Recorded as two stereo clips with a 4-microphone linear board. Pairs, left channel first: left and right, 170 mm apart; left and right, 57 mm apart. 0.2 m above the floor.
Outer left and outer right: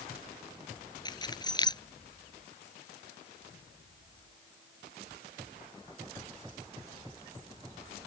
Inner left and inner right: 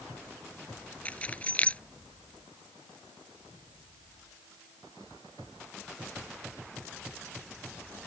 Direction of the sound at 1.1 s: 25° left (ahead or behind).